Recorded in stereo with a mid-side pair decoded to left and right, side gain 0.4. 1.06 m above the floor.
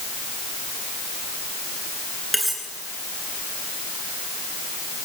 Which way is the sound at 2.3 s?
5° right.